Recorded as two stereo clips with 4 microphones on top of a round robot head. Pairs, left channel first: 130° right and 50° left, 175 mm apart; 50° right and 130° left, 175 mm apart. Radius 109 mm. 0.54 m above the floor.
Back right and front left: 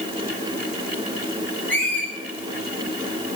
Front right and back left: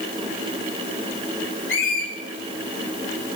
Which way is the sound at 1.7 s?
50° right.